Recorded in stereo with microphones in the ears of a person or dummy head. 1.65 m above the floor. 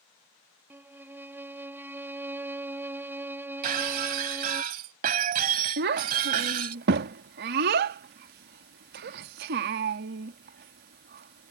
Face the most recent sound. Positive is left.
turn(degrees=-45)  # may be behind; listen again after turning